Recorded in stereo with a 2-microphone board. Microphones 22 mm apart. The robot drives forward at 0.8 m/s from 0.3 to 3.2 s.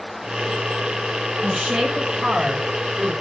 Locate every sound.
1.4 s a woman speaking: 55° right (ahead or behind), 5 m; by 3.1 s 70° right (ahead or behind), 4.5 m